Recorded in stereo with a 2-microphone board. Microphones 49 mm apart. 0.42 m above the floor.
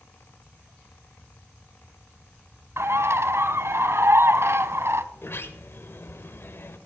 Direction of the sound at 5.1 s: 55° left (ahead or behind).